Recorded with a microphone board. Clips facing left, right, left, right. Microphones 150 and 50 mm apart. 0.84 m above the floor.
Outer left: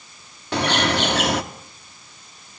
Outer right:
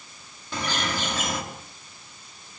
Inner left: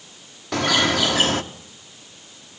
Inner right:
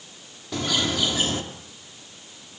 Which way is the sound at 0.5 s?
70° left (ahead or behind).